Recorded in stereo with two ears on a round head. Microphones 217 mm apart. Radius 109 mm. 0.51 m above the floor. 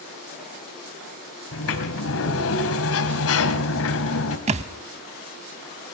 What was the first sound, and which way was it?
A sliding door, 65° left (ahead or behind).